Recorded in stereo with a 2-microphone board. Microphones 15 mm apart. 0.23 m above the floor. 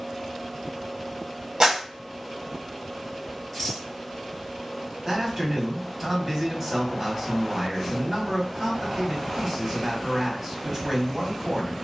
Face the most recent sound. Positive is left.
turn(degrees=-20)  # may be behind; listen again after turning